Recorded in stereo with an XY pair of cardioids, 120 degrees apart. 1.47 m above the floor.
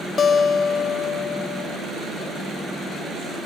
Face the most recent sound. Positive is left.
turn(degrees=40)